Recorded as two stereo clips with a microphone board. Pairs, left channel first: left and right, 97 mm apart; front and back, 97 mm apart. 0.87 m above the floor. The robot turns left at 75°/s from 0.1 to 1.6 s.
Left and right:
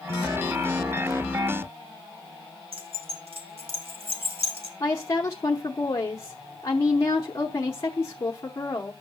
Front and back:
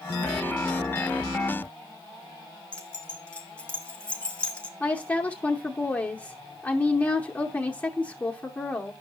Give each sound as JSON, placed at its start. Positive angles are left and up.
{"t": 2.7, "sound": "keys jangling", "azimuth_deg": -75, "distance_m": 1.4}
{"t": 4.8, "sound": "a woman speaking", "azimuth_deg": 65, "distance_m": 0.8}